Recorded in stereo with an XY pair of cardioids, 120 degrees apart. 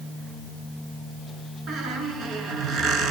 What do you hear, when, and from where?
1.7 s a squeak: 55° right, 9 m